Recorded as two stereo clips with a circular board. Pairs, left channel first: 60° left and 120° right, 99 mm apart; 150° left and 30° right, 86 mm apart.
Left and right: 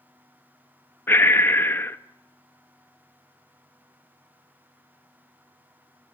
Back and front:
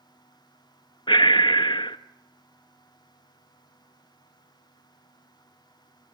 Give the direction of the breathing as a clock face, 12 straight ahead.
8 o'clock.